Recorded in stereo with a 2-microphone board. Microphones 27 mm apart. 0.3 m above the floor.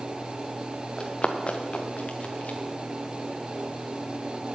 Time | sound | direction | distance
1.0 | running footsteps | 30° left (ahead or behind) | 1.6 m